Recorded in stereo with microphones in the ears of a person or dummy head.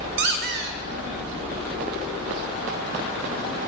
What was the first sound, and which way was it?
A squeak, 60° right (ahead or behind).